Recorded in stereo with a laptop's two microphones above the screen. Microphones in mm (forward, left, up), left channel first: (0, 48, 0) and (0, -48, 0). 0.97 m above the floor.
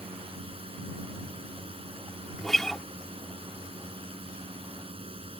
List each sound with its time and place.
0.0 s a drone: 75° right (ahead or behind)
2.4 s a guitar: 5° left (ahead or behind)